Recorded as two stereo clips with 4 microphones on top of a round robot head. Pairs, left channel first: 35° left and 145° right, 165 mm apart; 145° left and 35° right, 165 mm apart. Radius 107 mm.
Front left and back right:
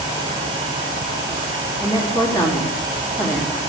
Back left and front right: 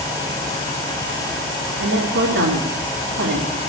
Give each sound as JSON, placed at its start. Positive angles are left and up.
{"t": 1.8, "sound": "a woman speaking", "azimuth_deg": -35, "distance_m": 2.5}